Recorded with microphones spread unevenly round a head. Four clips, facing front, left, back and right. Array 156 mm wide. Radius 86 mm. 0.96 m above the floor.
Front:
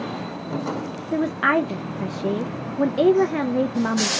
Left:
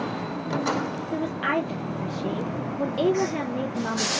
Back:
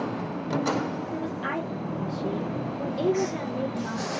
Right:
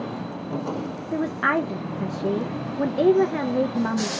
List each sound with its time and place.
1.1 s a woman speaking: 15° right, 0.6 m